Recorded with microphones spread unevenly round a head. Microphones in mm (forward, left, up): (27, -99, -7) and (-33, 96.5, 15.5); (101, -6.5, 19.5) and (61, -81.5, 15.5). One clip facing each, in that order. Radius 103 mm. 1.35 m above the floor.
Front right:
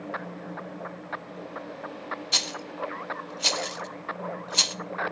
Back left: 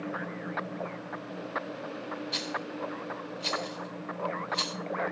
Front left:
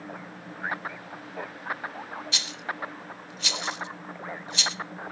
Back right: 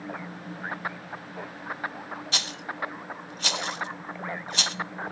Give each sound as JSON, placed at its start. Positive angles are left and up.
{"t": 2.3, "sound": "a rattle", "azimuth_deg": -80, "distance_m": 0.7}